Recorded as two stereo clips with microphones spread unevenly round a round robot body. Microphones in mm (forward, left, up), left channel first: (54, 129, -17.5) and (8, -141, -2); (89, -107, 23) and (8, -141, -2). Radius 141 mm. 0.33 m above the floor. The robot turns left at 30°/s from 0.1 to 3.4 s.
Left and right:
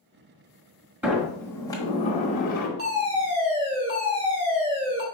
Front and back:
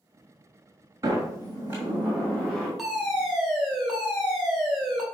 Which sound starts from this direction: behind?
A sliding door, at 1.0 s.